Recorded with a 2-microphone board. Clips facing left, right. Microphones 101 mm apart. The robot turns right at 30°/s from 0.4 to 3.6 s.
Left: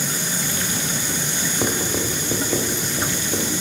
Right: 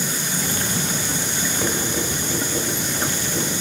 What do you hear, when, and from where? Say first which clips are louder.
1.6 s writing: left 2 dB; 20° left (ahead or behind), 1.1 m; by 3.5 s 55° left (ahead or behind), 1.1 m